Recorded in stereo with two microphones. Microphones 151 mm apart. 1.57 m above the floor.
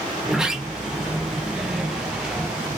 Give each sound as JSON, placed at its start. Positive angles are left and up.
{"t": 0.2, "sound": "a sliding door", "side_deg": -5, "distance_m": 1.0}